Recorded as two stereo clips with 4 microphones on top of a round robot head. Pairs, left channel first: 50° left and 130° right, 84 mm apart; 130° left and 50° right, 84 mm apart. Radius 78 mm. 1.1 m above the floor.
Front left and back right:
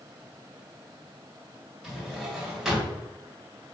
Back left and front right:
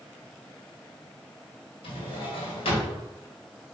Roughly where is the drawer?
Behind left.